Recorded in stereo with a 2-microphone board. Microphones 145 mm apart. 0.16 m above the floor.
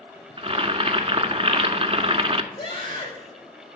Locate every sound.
0.4 s boiling: 45° right (ahead or behind), 0.6 m
2.5 s a scream: 35° left (ahead or behind), 5.5 m